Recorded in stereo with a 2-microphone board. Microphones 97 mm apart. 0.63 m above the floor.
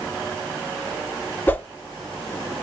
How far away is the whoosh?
About 0.6 m.